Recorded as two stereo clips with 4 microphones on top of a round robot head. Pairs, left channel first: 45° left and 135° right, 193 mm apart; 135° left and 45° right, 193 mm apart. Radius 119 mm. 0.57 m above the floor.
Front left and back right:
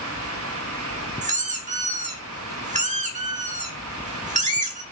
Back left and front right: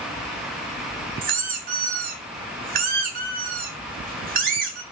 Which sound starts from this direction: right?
A squeak, at 1.2 s.